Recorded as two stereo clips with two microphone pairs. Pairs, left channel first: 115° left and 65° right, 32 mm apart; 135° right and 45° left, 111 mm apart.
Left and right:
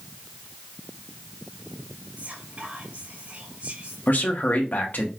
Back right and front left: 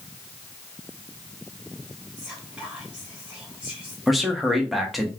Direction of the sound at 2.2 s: 35° right.